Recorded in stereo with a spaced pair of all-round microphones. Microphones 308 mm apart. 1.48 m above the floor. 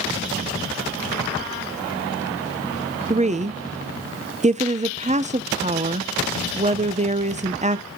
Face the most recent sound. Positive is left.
turn(degrees=-25)  # may be behind; listen again after turning